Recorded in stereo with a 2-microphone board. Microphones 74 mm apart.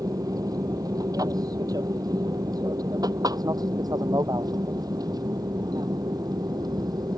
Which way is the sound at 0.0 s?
55° right (ahead or behind).